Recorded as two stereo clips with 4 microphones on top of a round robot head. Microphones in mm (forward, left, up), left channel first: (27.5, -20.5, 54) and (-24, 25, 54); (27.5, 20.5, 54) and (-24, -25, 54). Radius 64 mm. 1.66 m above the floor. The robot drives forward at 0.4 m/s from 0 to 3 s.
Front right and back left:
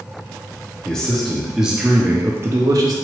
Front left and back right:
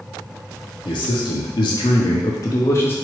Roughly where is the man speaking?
Ahead left.